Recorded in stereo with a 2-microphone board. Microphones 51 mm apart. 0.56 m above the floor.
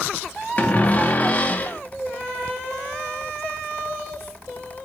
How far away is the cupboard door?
About 0.6 m.